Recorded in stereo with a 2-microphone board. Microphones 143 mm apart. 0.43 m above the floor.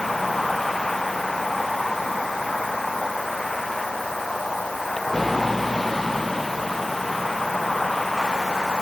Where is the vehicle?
Centre (ahead or behind).